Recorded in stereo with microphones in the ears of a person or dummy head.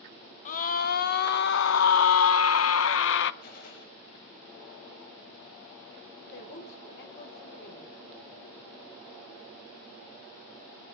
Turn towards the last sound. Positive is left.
turn(degrees=65)  # may be behind; listen again after turning